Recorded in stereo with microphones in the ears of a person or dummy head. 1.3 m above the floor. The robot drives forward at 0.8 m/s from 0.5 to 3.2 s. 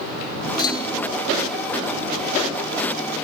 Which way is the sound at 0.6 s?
20° left (ahead or behind).